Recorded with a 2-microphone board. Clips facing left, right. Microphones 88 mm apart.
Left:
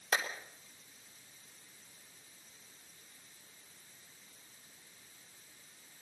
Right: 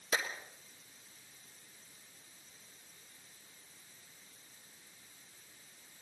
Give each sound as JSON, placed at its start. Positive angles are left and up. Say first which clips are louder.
{"t": 0.1, "sound": "a clap", "louder": "left 1 dB", "side_deg": 70, "distance_m": 3.0}